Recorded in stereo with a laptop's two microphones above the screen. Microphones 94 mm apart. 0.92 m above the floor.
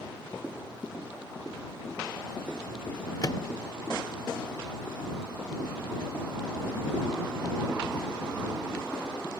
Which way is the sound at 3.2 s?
50° left (ahead or behind).